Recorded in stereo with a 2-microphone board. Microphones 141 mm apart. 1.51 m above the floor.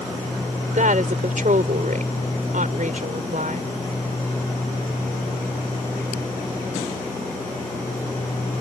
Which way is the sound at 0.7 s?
70° right (ahead or behind).